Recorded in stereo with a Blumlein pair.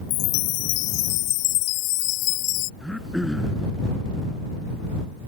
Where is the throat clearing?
Straight ahead.